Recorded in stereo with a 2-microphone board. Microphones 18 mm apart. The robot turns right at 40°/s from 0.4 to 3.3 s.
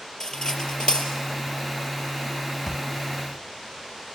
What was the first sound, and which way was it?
Cutlery clinking, 35° left (ahead or behind).